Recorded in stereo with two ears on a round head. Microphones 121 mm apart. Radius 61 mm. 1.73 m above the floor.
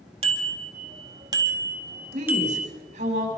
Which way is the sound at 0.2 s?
45° right (ahead or behind).